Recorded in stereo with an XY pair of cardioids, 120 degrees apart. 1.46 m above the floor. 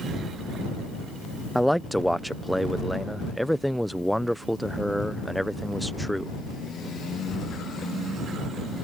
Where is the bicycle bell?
No bicycle bell in this recording.